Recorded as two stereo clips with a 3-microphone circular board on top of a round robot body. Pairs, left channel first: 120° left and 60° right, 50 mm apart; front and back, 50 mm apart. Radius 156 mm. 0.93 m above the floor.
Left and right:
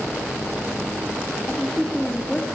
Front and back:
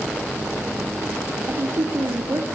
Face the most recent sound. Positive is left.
turn(degrees=-155)